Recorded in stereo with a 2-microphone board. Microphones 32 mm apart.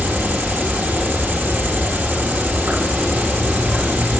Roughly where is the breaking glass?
I don't hear breaking glass.